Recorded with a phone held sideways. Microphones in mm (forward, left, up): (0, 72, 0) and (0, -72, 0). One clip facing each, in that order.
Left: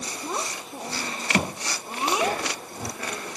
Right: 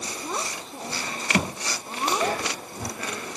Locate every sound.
0.2 s a child speaking: 5° left (ahead or behind); by 2.4 s 10° left (ahead or behind)